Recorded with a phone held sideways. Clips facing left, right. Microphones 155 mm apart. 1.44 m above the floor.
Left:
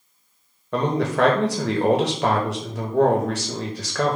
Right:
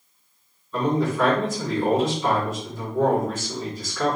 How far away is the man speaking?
About 1.0 m.